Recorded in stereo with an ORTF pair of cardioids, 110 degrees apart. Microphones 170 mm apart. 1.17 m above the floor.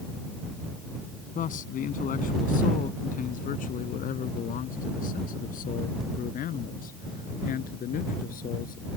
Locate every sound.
1.4 s a man speaking: 55° left; by 8.9 s 60° left